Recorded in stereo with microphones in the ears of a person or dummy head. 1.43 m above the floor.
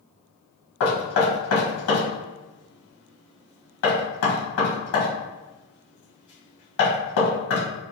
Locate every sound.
0.8 s knocking: 70° left (ahead or behind), 1.3 m